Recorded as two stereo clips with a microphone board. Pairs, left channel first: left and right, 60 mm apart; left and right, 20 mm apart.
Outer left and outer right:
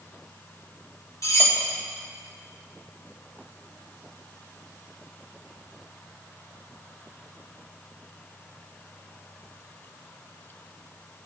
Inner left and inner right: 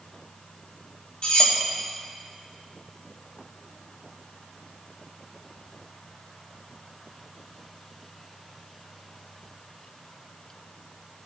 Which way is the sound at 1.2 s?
60° left (ahead or behind).